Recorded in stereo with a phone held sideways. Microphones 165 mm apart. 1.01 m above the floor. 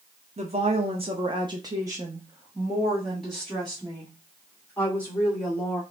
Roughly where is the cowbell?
No cowbell in this recording.